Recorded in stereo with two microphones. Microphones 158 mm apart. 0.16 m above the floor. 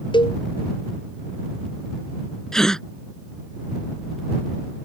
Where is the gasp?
5° left (ahead or behind).